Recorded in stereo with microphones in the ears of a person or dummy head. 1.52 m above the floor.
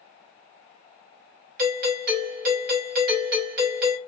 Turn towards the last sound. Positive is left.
turn(degrees=-50)  # may be behind; listen again after turning